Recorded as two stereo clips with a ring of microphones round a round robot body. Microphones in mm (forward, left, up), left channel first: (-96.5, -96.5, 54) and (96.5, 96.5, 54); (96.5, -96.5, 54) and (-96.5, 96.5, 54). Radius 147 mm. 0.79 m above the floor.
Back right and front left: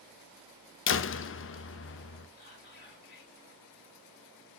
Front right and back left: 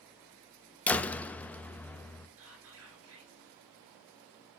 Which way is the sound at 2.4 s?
170° left.